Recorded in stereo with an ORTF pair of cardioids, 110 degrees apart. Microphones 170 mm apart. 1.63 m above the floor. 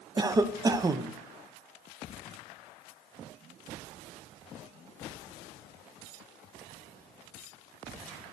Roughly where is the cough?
Ahead.